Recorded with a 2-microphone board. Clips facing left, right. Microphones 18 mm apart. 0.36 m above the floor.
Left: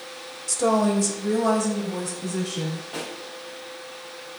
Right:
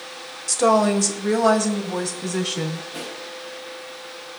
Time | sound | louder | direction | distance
0.5 | a woman speaking | right 4 dB | 25° right (ahead or behind) | 1.2 m
2.9 | a pop | even | 65° left (ahead or behind) | 6.5 m